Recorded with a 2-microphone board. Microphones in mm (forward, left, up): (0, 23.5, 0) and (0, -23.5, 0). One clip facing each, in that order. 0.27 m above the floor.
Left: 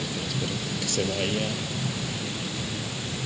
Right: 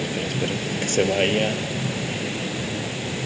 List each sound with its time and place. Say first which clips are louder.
0.0 s a vehicle: right 5 dB; 45° right (ahead or behind)